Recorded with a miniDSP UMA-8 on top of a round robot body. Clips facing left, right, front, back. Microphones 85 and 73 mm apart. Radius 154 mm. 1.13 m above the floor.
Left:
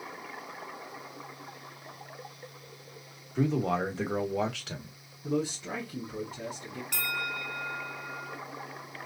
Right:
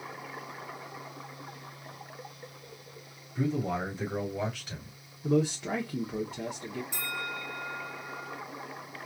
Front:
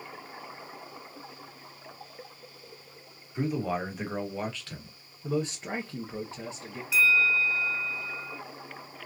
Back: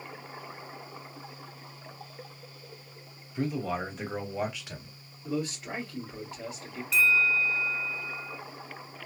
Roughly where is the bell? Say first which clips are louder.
Left 2 dB, front 1 dB; left.